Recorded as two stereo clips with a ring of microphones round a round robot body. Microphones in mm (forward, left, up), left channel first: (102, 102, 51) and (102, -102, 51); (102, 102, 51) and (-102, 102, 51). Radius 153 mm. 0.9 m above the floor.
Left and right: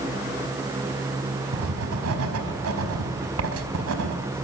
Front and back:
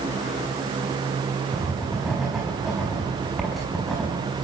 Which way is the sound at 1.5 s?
90° right.